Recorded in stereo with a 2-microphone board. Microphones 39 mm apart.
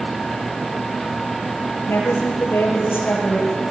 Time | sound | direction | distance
1.9 | a woman speaking | 80° left | 7.5 m